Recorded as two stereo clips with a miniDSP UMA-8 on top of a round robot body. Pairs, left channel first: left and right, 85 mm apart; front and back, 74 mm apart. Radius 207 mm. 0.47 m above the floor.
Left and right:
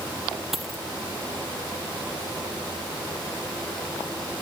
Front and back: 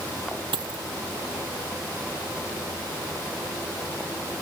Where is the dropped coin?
Straight behind.